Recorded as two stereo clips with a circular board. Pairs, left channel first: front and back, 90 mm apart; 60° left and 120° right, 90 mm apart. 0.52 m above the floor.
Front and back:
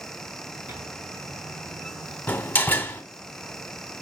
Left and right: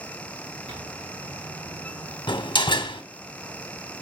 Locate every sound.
0.7 s a microwave: 120° right, 3 m
2.3 s a door slam: 70° left, 1.1 m